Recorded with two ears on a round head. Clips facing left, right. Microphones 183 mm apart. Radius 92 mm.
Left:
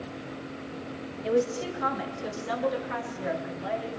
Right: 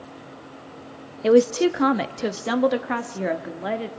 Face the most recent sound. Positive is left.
turn(degrees=-65)  # may be behind; listen again after turning